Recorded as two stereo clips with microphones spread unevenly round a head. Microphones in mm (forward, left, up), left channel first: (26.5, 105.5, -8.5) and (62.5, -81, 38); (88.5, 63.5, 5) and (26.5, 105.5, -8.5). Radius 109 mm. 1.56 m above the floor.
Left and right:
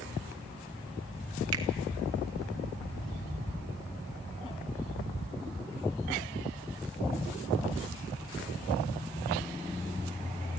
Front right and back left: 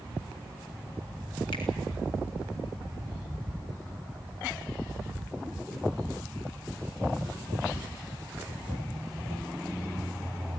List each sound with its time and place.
1.5 s a finger snap: 85° right, 1.7 m